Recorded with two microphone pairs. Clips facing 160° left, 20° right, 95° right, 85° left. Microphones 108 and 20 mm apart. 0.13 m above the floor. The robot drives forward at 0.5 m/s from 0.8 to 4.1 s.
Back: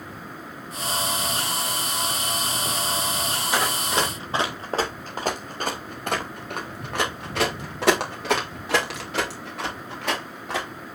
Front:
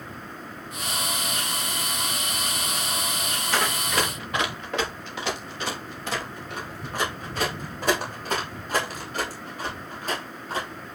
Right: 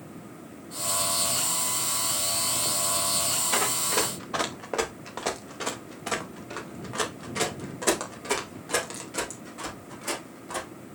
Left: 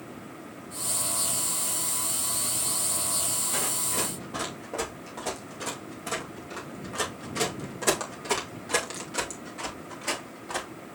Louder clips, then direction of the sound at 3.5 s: Back 1 dB, right 6 dB; 120° right.